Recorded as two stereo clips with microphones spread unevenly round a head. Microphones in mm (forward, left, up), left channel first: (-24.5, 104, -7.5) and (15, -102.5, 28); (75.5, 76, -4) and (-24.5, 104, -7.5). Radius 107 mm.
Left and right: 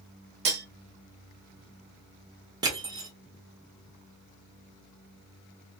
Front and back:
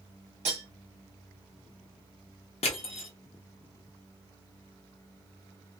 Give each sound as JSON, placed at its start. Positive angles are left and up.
{"t": 0.5, "sound": "cutlery clinking", "azimuth_deg": -135, "distance_m": 0.8}
{"t": 2.6, "sound": "crushing", "azimuth_deg": -5, "distance_m": 0.8}